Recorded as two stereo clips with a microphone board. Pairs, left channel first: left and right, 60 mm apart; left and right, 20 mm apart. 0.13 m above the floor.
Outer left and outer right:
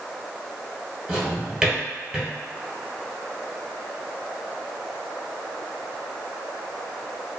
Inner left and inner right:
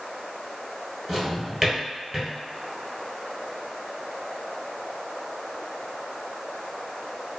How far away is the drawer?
About 1.3 m.